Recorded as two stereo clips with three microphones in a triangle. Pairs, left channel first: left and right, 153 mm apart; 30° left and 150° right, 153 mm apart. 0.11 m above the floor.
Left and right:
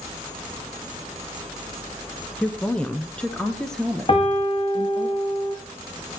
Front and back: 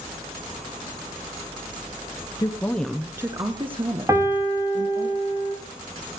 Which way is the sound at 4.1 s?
140° left.